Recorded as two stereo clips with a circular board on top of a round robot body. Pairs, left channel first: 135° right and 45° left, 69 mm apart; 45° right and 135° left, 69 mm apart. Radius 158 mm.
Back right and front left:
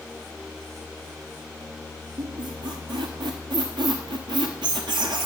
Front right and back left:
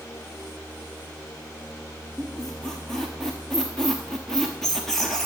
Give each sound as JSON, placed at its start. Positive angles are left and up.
{"t": 2.2, "sound": "a squeak", "azimuth_deg": 40, "distance_m": 0.6}